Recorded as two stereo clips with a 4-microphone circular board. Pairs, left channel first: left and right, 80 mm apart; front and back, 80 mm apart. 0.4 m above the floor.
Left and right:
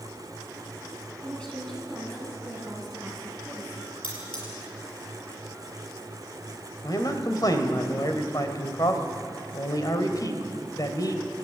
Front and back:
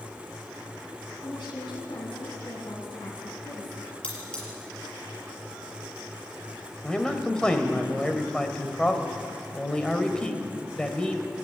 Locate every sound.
1.2 s a woman speaking: 15° left, 4.5 m; by 3.9 s 10° right, 5 m
4.0 s cutlery clinking: 75° left, 5.5 m
6.8 s a man speaking: 75° left, 2 m